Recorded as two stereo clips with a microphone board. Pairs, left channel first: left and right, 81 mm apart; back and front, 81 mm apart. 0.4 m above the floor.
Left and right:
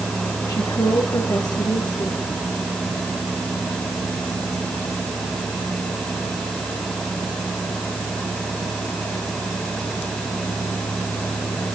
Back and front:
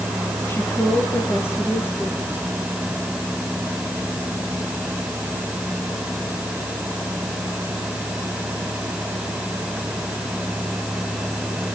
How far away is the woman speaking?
About 5.5 m.